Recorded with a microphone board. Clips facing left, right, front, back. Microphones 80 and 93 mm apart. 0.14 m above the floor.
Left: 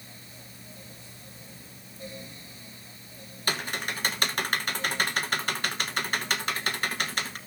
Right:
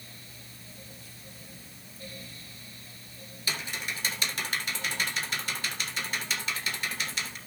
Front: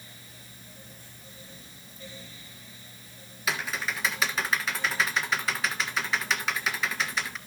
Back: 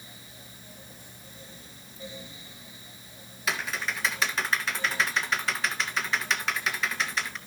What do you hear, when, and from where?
3.5 s typing on a keyboard: 90° left, 1.4 m